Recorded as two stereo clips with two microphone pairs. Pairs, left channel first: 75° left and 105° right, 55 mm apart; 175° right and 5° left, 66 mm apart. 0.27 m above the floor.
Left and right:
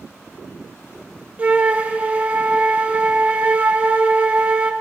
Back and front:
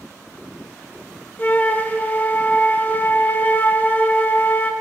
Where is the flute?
140° right, 0.7 m.